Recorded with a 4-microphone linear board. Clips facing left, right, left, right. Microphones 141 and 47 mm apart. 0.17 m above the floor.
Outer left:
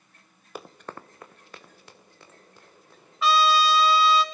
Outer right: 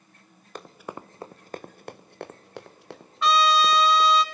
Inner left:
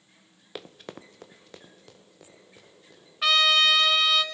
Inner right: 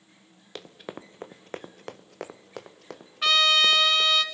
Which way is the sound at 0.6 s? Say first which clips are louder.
Outer right 1 dB, inner right 1 dB; 5° left (ahead or behind).